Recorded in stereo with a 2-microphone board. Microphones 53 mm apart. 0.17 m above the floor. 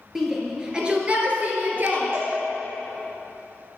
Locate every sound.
0.1 s a shout: 5° right (ahead or behind), 3 m; by 2.1 s 45° right (ahead or behind), 3 m
2.1 s a cowbell: 50° right (ahead or behind), 3.5 m